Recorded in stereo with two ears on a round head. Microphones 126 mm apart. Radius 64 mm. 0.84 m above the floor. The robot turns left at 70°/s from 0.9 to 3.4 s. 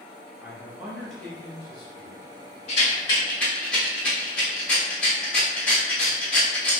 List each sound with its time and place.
0.4 s a man speaking: 170° right, 1.1 m; by 2.2 s 100° left, 1.1 m
2.7 s a rattle: 50° left (ahead or behind), 1.5 m; by 6.8 s 10° left (ahead or behind), 1.5 m